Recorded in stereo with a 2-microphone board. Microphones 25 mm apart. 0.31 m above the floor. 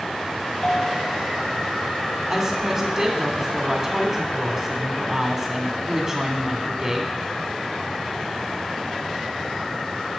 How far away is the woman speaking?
About 2 m.